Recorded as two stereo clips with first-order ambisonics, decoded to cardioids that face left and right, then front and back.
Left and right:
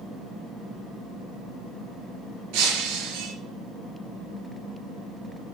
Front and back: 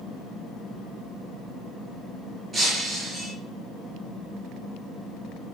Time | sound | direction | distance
2.5 | breaking glass | 110° right | 4 m